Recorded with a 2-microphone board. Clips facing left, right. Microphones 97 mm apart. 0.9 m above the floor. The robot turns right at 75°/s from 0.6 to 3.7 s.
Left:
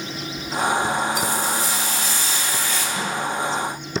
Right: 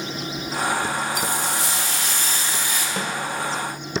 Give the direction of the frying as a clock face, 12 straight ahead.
4 o'clock.